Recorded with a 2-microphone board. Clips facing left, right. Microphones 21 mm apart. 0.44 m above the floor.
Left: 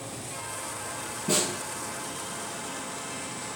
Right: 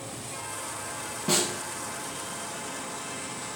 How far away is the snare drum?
About 1.0 m.